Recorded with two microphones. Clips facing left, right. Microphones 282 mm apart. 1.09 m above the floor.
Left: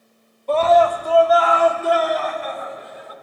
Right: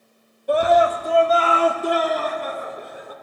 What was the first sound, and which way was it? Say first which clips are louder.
A scream: left 2 dB; 15° right (ahead or behind).